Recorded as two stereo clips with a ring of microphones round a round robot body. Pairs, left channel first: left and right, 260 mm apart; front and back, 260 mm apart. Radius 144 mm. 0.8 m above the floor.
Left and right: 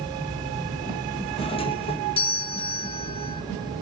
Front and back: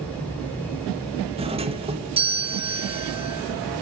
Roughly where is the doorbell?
Behind left.